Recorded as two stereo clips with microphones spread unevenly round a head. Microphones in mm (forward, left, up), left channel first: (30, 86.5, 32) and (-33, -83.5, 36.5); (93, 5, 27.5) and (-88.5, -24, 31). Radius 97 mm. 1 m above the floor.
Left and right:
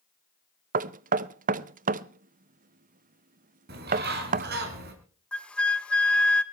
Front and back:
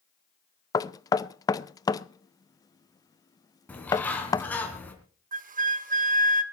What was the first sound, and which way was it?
Knocking, 65° right.